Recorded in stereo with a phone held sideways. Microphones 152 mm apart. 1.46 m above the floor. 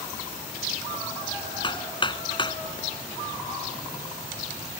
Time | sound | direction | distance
1.6 | hammering | 30° left (ahead or behind) | ?